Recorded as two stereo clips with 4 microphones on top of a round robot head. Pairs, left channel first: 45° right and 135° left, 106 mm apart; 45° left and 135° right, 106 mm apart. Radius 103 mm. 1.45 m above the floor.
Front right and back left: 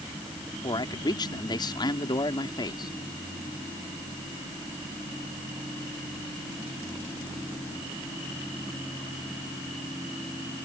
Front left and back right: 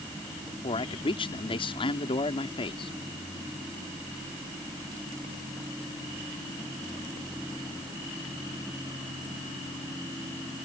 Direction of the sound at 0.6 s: 5° left.